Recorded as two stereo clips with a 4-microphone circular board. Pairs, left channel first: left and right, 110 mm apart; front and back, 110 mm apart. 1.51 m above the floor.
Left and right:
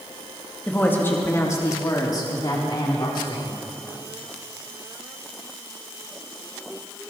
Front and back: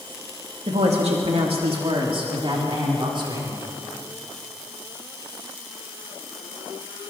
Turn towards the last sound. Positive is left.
turn(degrees=135)